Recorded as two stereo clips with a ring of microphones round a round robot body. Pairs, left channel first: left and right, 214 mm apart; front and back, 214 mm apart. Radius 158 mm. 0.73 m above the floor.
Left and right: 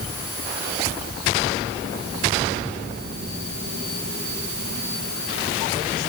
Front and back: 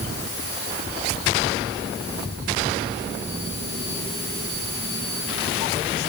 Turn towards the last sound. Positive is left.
No sound to turn to.